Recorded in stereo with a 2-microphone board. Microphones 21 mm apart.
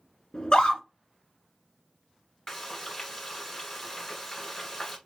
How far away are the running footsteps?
No running footsteps in this recording.